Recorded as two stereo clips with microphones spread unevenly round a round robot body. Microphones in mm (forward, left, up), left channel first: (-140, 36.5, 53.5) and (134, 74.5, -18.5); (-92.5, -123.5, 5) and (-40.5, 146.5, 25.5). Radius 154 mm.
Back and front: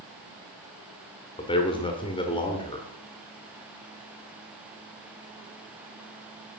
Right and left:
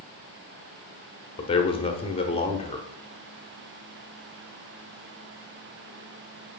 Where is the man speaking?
85° right, 0.8 m.